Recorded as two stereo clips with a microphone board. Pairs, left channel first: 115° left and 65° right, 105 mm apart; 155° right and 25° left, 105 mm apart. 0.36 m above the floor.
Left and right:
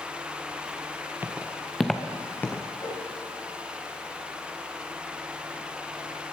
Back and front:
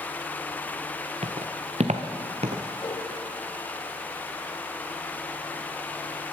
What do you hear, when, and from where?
1.2 s footsteps: 5° left, 1.3 m; by 2.6 s 45° left, 1.7 m
2.8 s a whoosh: 160° left, 5.5 m